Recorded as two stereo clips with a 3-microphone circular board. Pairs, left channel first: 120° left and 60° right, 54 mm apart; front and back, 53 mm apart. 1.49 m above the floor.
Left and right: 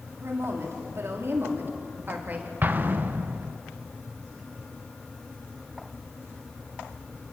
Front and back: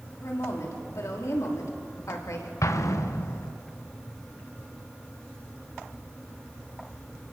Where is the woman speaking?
25° right, 4.5 m; by 2.5 s 5° right, 3 m.